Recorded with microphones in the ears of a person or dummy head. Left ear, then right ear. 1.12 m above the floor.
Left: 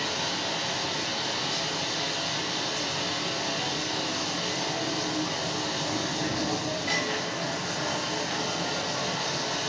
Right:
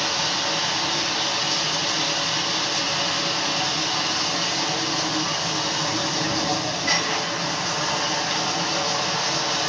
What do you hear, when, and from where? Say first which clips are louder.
0.0 s running water: right 6 dB; 10° right (ahead or behind), 1.1 m